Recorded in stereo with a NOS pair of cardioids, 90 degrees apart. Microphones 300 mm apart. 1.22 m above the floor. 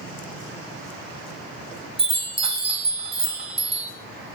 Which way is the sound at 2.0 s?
20° right.